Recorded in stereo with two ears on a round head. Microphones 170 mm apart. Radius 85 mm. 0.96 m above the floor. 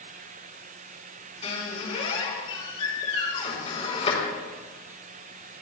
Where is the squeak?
35° left (ahead or behind), 5 m.